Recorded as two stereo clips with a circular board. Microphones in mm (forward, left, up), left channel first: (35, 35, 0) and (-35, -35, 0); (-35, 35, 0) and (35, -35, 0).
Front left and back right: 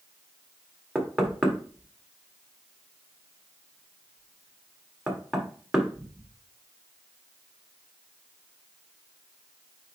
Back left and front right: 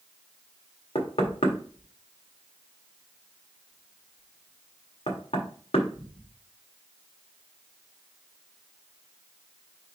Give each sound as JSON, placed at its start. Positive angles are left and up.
{"t": 0.9, "sound": "knocking", "azimuth_deg": 140, "distance_m": 1.7}